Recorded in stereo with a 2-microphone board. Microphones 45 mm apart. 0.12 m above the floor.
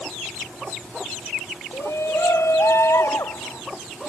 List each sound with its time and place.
1.7 s a shout: 85° left; by 3.6 s 80° left